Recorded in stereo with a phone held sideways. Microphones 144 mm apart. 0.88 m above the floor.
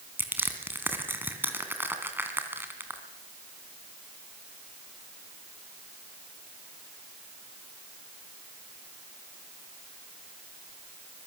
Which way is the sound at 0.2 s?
15° right (ahead or behind).